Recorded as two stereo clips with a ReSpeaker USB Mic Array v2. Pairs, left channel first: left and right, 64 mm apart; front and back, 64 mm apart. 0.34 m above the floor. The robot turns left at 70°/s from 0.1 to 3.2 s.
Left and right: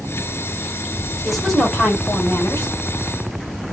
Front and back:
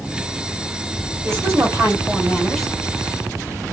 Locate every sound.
1.2 s a woman speaking: 170° right, 1.8 m; by 2.7 s 90° left, 1.8 m